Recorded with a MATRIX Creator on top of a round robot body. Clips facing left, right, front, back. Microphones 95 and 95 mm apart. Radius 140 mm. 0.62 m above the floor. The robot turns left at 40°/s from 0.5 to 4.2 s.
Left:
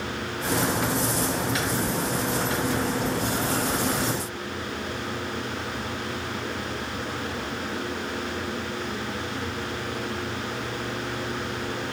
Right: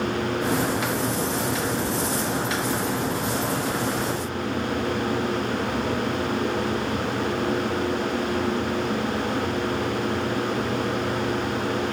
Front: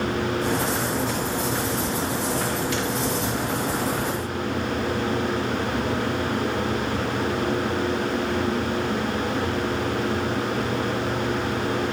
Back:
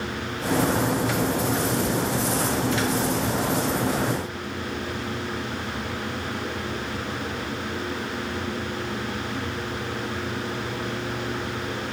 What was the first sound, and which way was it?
Only background noise.